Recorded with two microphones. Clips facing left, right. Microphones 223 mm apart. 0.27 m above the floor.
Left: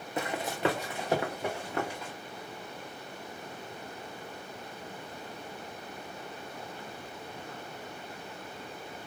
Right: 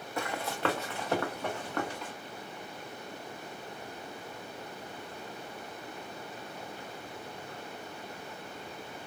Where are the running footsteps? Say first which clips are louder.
Left 2 dB; 20° left (ahead or behind), 0.6 m; by 2.1 s 10° left (ahead or behind), 1.6 m.